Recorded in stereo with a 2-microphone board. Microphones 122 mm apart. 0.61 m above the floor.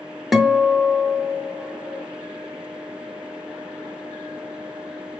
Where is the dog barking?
No dog barking in this recording.